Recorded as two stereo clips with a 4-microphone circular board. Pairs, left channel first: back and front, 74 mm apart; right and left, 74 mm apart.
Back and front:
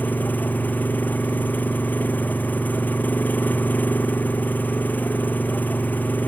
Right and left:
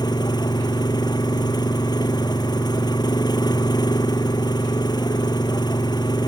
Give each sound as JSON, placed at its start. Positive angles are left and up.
{"t": 0.0, "sound": "an engine running", "azimuth_deg": -115}